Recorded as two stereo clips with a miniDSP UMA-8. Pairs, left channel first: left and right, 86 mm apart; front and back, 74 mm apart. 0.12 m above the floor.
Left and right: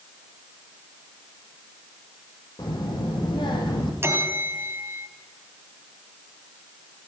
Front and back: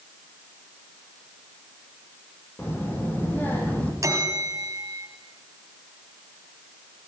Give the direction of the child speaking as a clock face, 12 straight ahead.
10 o'clock.